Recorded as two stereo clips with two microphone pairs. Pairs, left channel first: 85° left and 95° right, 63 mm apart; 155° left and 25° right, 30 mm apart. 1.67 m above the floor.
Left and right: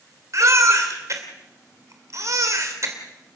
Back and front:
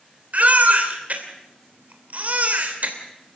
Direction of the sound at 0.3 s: 60° right.